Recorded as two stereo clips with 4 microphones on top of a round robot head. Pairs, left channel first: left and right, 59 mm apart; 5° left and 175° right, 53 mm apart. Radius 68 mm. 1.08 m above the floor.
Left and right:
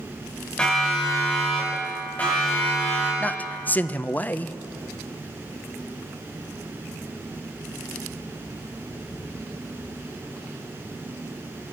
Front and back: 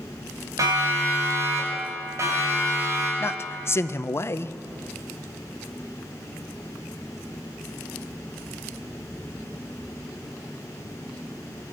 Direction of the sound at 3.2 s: 35° left.